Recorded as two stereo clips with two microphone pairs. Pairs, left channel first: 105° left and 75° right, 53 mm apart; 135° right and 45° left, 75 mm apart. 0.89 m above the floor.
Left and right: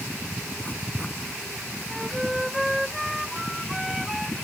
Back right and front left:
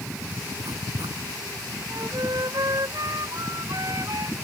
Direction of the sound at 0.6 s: 30° left.